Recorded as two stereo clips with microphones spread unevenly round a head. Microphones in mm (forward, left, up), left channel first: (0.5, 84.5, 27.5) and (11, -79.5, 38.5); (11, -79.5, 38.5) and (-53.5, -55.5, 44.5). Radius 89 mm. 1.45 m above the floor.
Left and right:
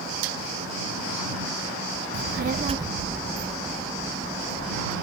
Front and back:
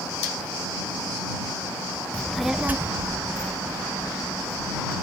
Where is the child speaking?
90° right; by 4.9 s 155° left.